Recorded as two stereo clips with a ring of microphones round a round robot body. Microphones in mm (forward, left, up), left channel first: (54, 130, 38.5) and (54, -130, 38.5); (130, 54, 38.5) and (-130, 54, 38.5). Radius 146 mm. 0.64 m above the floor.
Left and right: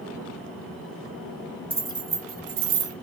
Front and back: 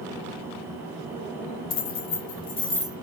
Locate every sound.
1.7 s keys jangling: 10° right, 1.4 m; by 2.9 s 95° right, 1.0 m